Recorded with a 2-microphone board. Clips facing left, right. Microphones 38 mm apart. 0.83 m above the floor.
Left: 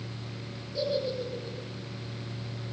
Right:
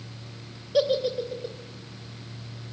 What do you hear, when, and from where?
0.7 s a giggle: 75° right (ahead or behind), 3.5 m